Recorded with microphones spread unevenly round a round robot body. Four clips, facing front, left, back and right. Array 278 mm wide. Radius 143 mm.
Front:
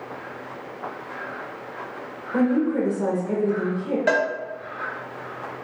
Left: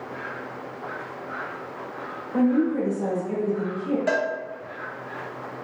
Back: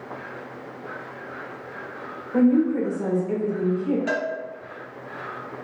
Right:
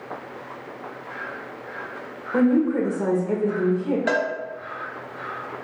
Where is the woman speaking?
65° right, 1.2 m.